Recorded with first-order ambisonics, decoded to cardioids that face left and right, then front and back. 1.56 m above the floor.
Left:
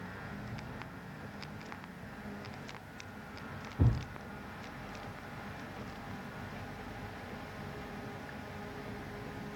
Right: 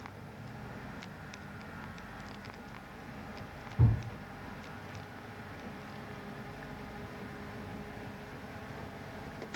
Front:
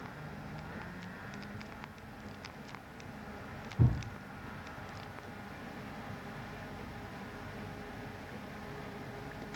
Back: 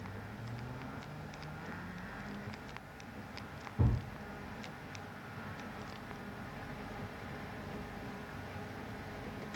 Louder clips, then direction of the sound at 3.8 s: Even, front 2 dB; 110° right.